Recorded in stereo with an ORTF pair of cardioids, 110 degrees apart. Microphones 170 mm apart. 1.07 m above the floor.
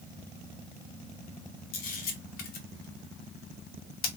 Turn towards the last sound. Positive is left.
turn(degrees=60)